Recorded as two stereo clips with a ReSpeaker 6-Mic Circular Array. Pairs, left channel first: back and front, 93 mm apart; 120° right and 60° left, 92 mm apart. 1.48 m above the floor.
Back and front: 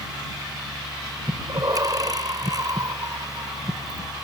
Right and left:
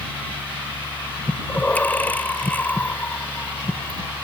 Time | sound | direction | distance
1.3 | breathing | 45° right | ?